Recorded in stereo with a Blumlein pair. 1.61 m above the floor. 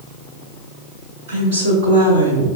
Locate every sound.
1.3 s a woman speaking: 60° right, 4 m; by 2.5 s 65° right, 3 m